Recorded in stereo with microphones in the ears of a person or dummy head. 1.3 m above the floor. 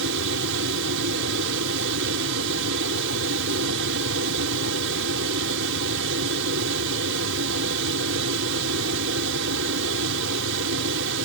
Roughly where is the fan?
Right.